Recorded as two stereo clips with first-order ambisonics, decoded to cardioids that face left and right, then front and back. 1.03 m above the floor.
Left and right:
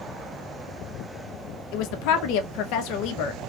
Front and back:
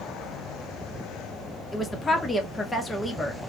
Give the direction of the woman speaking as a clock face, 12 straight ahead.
9 o'clock.